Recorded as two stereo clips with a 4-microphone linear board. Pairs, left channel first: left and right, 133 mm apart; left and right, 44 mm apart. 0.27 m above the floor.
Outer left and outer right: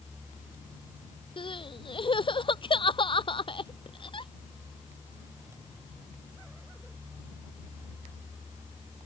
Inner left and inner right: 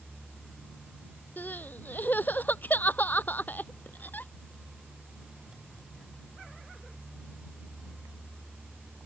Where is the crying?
40° left (ahead or behind).